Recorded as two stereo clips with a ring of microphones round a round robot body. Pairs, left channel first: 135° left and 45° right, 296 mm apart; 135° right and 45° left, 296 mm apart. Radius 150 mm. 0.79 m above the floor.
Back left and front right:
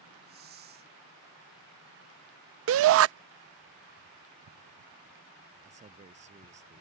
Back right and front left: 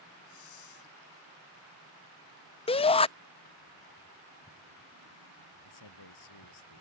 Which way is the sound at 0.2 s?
105° right.